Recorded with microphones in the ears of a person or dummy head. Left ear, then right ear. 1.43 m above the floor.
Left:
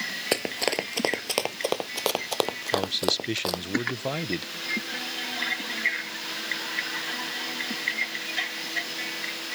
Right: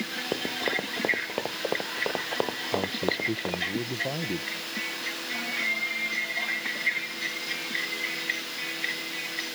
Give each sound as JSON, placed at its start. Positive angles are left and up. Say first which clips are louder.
{"t": 0.3, "sound": "running footsteps", "louder": "left 2 dB", "side_deg": 40}
{"t": 2.7, "sound": "a man speaking", "louder": "left 4 dB", "side_deg": 65}